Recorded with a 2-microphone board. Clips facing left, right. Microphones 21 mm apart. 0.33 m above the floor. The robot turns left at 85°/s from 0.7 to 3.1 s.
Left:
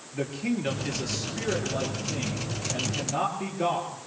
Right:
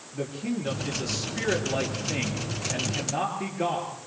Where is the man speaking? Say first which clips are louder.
Left 2 dB; 35° left, 7 m; by 4.0 s 170° right, 7 m.